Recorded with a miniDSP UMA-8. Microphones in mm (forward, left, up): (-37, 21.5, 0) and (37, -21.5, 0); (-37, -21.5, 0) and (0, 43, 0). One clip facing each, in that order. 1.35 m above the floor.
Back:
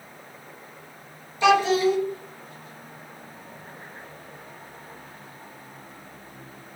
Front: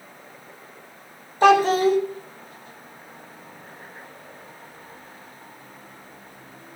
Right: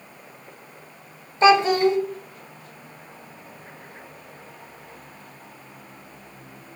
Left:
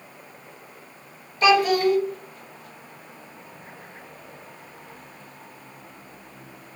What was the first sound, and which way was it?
A child speaking, 65° right.